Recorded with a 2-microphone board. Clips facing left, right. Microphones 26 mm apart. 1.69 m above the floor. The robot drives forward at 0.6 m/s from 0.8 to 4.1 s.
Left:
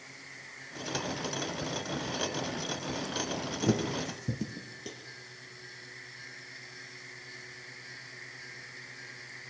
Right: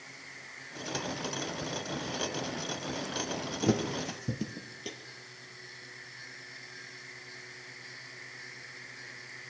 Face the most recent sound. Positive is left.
turn(degrees=-30)  # may be behind; listen again after turning